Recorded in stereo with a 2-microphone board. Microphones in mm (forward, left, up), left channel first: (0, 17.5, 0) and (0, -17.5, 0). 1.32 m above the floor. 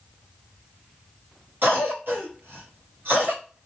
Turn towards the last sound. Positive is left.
turn(degrees=-75)  # may be behind; listen again after turning